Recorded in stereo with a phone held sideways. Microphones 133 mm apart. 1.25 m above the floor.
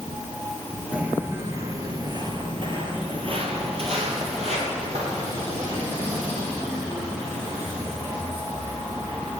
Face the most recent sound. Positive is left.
turn(degrees=-60)  # may be behind; listen again after turning